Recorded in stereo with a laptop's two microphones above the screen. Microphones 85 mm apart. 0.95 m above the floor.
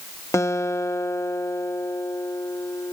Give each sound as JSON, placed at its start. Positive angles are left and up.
{"t": 0.3, "sound": "a guitar", "side_deg": 35}